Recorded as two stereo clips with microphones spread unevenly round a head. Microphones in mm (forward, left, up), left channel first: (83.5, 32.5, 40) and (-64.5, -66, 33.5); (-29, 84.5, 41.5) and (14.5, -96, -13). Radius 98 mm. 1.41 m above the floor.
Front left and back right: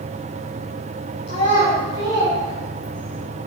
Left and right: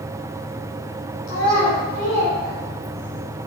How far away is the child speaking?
About 3 m.